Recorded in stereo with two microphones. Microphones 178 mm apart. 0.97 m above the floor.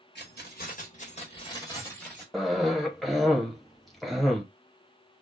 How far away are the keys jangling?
About 1.1 m.